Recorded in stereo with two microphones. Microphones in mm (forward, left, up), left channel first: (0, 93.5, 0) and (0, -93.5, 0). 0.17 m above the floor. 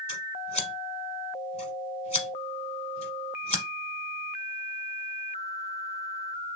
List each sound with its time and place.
0.1 s scissors: 35° left (ahead or behind), 1.1 m